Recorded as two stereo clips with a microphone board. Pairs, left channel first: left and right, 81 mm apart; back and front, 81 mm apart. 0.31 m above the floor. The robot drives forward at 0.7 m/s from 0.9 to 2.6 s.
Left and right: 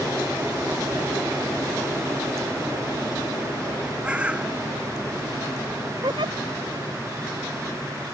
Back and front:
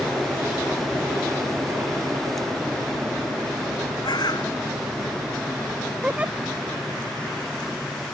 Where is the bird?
165° right.